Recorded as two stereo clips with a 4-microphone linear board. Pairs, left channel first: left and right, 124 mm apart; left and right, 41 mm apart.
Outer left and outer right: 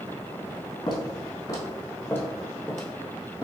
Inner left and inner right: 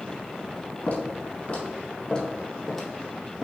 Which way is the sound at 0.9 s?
40° left (ahead or behind).